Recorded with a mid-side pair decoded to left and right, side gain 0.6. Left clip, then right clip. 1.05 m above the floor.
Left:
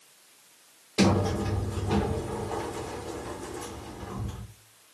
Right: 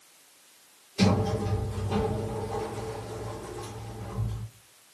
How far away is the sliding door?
About 0.9 m.